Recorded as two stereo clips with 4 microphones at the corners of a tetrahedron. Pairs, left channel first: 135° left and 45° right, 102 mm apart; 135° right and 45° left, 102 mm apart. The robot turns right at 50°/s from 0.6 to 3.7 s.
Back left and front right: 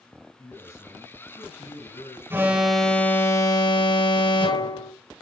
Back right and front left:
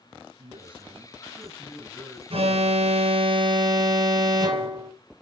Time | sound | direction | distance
0.4 | a man speaking | 65° left | 5.5 m
2.3 | an alarm | 25° left | 2.5 m